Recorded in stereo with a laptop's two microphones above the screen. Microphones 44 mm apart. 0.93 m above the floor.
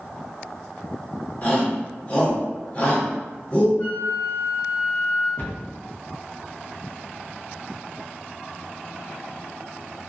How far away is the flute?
About 1.5 m.